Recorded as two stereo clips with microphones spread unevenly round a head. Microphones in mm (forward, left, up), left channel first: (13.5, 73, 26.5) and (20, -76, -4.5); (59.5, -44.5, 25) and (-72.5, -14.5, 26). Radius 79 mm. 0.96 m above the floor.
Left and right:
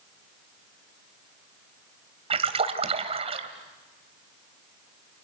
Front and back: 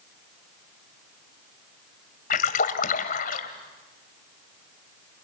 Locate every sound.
2.3 s a splash: 35° right, 2 m